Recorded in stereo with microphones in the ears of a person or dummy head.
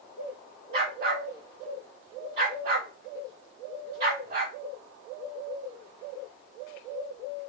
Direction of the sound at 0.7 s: 25° right (ahead or behind).